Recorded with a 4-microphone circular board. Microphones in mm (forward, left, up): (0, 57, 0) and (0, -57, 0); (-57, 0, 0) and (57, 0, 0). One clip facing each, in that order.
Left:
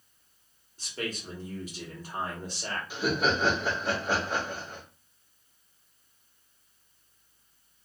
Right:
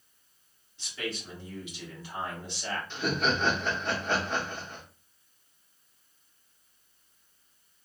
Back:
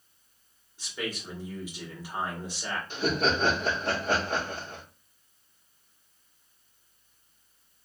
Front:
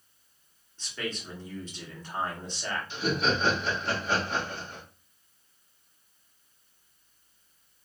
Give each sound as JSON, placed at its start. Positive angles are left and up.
{"t": 0.8, "sound": "a man speaking", "azimuth_deg": 105, "distance_m": 1.2}
{"t": 2.9, "sound": "laughter", "azimuth_deg": 170, "distance_m": 1.2}